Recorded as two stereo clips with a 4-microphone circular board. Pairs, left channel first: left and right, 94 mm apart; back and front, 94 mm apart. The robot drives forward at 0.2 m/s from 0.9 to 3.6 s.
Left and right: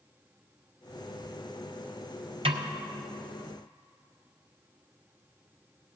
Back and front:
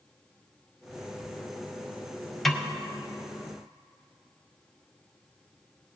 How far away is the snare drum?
About 0.8 m.